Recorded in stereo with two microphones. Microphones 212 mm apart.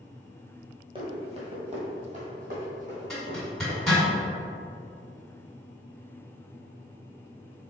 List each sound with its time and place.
0.9 s running footsteps: 25° right (ahead or behind), 1.4 m; by 4.1 s 40° right (ahead or behind), 3.5 m
3.1 s a zipper: centre (ahead or behind), 1.8 m